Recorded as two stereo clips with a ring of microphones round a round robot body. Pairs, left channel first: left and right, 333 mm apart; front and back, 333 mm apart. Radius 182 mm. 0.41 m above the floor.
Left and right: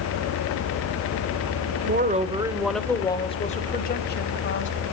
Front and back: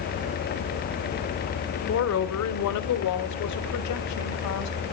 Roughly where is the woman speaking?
Ahead right.